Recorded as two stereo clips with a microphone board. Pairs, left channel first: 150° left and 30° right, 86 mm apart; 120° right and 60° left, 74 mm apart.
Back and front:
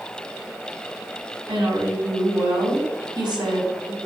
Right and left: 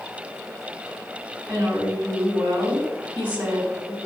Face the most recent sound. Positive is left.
turn(degrees=-10)